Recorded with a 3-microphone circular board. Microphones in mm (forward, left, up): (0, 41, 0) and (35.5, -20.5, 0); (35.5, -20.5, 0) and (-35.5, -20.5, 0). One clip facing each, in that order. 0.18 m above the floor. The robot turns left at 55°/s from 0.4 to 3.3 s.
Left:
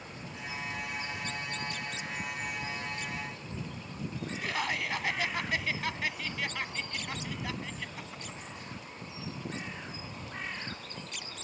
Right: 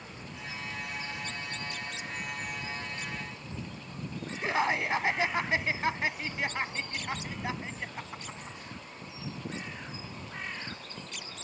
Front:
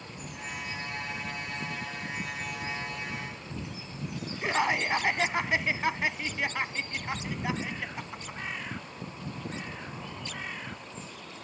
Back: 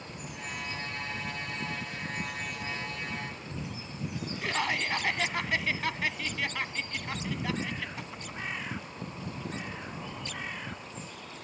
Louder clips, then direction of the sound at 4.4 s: Right 6 dB, front 4 dB; 40° right.